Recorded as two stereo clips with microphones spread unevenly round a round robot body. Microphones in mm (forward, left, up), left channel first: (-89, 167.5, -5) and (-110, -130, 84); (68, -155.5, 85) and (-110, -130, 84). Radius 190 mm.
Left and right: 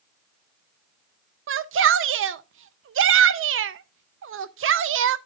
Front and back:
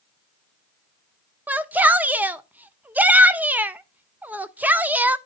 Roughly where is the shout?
Behind right.